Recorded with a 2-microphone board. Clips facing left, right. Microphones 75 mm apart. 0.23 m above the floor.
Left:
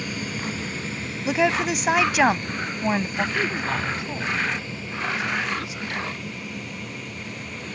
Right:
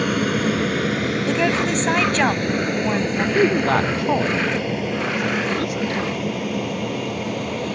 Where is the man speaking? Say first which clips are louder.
Right 9 dB; 55° right (ahead or behind).